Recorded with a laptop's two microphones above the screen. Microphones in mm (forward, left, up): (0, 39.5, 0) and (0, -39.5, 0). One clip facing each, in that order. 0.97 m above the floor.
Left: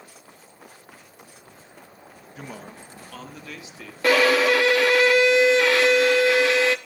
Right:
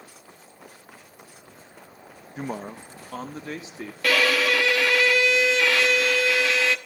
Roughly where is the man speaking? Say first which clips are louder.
Right 7 dB; right.